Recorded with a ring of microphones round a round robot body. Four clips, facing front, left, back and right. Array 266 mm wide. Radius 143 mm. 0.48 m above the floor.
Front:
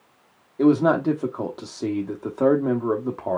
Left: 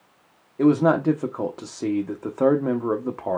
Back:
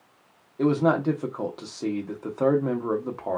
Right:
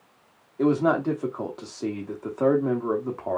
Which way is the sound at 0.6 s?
55° left.